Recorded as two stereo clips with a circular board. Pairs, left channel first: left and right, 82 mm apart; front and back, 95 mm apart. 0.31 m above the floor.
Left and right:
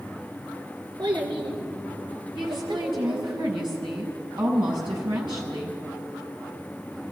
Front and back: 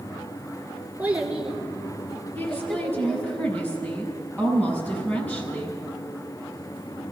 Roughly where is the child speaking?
Right.